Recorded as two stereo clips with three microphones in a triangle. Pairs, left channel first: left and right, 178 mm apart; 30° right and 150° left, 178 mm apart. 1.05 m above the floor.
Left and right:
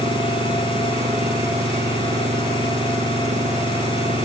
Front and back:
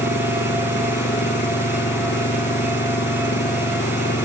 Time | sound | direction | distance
0.0 | an engine running | 40° right | ?